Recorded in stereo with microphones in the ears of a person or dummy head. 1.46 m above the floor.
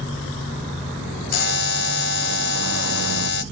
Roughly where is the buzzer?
Left.